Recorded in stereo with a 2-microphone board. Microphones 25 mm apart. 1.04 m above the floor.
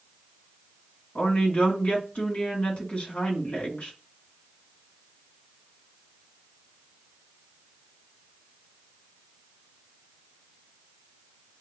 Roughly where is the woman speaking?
Left.